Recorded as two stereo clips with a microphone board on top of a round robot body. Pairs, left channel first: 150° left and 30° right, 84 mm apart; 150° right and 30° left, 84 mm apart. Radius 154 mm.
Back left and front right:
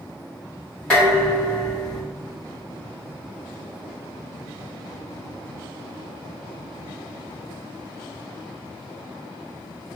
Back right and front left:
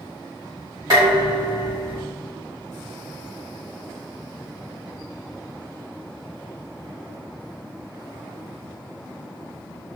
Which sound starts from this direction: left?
Dishes clattering, at 0.9 s.